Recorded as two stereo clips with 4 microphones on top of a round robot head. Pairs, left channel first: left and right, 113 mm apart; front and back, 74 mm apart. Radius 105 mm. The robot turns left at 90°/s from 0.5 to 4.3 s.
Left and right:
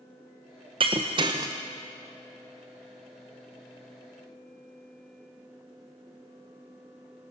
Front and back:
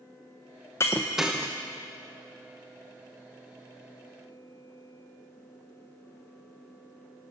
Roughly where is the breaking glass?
Ahead right.